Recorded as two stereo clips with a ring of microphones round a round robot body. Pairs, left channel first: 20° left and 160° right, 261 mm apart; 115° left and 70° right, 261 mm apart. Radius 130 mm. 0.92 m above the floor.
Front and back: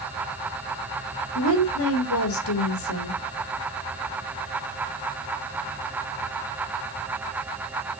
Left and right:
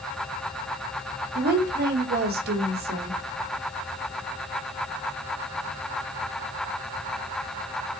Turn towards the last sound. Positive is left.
turn(degrees=-15)